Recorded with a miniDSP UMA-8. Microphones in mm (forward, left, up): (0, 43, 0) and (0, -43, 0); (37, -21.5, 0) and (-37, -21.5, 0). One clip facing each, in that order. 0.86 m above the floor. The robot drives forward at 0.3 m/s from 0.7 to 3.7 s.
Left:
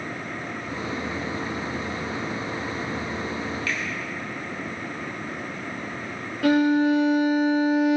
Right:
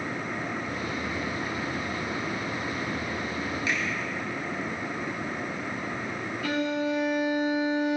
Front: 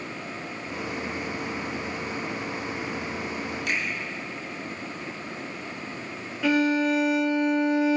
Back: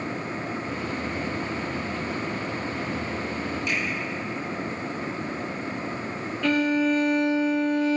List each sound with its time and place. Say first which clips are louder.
3.7 s a finger snap: even, even; 20° right, 3 m
6.4 s a violin: left 10 dB, even; 80° left, 1.2 m